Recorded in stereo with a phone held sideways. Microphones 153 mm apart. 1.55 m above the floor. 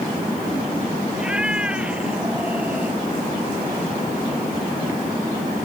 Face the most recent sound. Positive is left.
turn(degrees=-10)  # may be behind; listen again after turning